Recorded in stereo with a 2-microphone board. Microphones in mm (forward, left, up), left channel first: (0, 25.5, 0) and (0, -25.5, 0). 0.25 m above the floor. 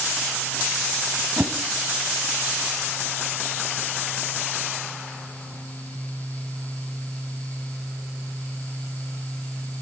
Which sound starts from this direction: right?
A whoosh, at 1.4 s.